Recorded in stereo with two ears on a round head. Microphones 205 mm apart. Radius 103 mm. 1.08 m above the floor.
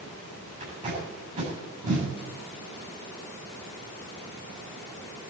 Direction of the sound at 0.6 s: 30° right (ahead or behind).